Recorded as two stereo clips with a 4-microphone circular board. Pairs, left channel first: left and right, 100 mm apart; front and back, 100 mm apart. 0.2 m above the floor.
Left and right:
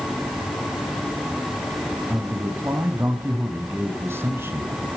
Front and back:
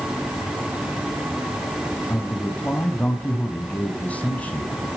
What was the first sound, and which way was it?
A man speaking, 60° right.